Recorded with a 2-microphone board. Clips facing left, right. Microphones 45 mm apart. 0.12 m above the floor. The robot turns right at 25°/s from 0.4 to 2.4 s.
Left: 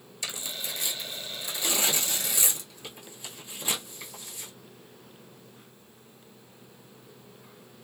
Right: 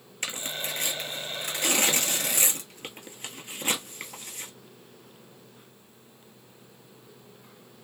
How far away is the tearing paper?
About 0.8 m.